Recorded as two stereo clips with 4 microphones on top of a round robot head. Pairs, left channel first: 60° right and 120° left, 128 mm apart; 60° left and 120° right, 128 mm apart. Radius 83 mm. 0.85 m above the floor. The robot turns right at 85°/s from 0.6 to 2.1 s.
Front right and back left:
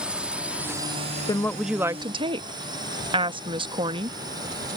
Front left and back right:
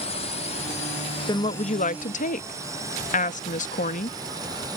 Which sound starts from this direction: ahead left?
A drone, at 0.0 s.